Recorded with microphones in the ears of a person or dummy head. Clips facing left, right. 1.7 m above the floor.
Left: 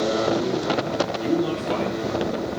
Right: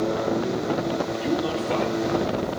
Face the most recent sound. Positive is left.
turn(degrees=10)  # may be behind; listen again after turning